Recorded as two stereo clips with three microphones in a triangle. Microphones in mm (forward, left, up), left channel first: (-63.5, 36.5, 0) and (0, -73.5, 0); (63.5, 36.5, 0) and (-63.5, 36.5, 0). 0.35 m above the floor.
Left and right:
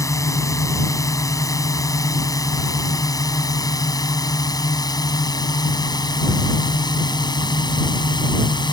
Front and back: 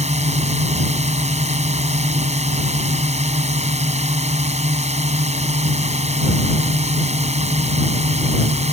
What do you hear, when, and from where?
0.0 s a drone: straight behind; by 8.7 s 170° left